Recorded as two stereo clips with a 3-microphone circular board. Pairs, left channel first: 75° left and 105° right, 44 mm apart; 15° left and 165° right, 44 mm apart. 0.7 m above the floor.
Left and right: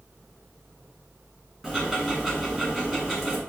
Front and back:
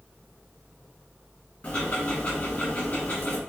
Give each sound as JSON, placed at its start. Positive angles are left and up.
{"t": 1.6, "sound": "ticking", "azimuth_deg": -25, "distance_m": 1.5}